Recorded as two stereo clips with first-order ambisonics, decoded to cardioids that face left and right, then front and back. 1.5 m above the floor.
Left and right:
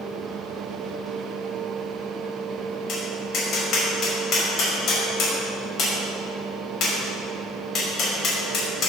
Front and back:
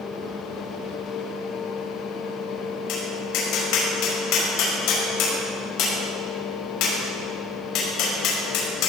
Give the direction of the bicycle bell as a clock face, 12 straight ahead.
I don't hear a bicycle bell.